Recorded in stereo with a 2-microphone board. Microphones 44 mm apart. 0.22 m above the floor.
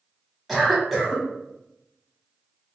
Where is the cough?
Centre (ahead or behind), 1.0 m.